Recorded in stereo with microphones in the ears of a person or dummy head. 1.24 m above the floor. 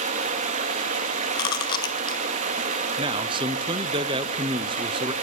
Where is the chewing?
25° left (ahead or behind), 0.6 m.